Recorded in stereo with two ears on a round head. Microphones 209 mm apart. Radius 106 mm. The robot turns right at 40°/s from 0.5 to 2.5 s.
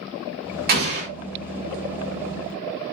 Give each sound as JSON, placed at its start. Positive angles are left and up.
{"t": 0.7, "sound": "an explosion", "side_deg": -40, "distance_m": 1.2}